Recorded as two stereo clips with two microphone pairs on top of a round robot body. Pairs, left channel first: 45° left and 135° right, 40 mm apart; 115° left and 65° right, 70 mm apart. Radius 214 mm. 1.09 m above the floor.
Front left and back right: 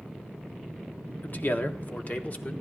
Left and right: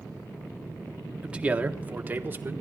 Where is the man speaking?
15° left, 1.2 m; by 2.5 s straight ahead, 1.7 m.